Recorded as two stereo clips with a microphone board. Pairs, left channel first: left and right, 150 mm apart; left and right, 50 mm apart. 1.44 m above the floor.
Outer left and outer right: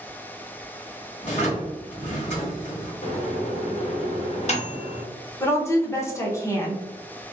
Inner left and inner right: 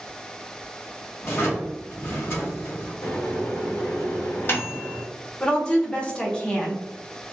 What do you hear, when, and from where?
1.2 s a drawer: 45° left (ahead or behind), 1.9 m
3.0 s a microwave: 45° left (ahead or behind), 0.8 m
5.4 s a woman speaking: 20° left (ahead or behind), 0.9 m